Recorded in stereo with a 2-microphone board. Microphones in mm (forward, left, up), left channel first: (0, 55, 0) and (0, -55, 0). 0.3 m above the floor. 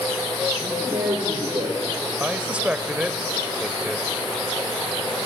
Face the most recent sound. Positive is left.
turn(degrees=-10)  # may be behind; listen again after turning